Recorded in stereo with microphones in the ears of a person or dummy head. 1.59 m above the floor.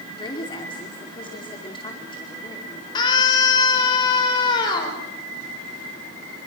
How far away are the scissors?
No scissors in this recording.